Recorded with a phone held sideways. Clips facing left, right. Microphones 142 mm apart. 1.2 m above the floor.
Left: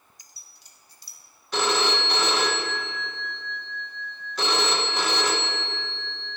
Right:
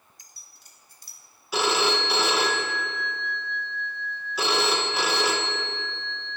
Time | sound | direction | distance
0.2 | keys jangling | 50° right (ahead or behind) | 0.6 m
1.5 | a phone ringing | 5° right (ahead or behind) | 0.6 m